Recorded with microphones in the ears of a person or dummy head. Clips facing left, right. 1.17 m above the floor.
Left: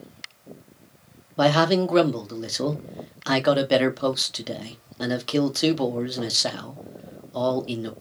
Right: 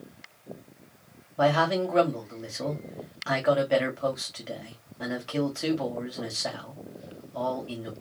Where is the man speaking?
60° left (ahead or behind), 1.0 m.